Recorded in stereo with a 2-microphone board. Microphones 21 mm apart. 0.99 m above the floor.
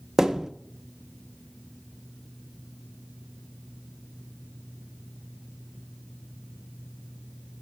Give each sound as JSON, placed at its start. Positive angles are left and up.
{"t": 0.2, "sound": "a thud", "side_deg": -25, "distance_m": 0.6}